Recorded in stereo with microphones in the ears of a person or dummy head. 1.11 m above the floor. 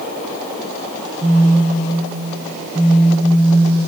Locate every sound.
1.2 s a phone buzzing: 20° right (ahead or behind), 0.6 m